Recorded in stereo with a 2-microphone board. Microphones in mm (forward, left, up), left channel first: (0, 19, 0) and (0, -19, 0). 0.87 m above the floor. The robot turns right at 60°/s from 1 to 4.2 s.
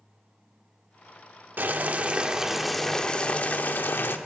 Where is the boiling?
70° right, 0.7 m; by 4.2 s 90° left, 0.7 m.